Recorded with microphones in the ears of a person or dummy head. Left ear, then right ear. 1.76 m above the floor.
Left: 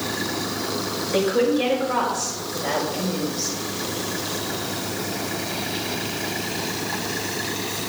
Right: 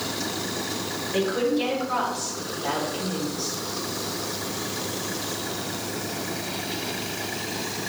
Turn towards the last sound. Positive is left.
turn(degrees=70)  # may be behind; listen again after turning